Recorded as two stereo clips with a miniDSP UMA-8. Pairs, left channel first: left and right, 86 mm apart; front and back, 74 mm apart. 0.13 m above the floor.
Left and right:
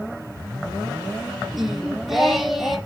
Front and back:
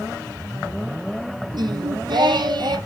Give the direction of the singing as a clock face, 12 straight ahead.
6 o'clock.